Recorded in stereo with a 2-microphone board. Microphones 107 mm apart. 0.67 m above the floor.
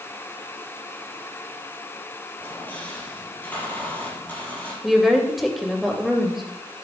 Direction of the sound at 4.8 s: Centre (ahead or behind).